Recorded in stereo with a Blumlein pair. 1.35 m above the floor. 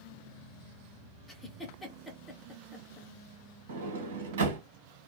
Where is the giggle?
5° left, 1.0 m.